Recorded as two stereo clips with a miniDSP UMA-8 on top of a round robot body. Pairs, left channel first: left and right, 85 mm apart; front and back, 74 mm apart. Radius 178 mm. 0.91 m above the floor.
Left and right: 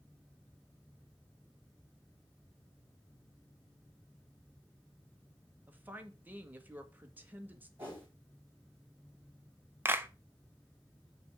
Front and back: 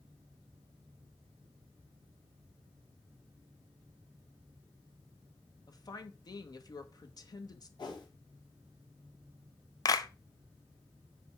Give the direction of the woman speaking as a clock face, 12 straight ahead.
1 o'clock.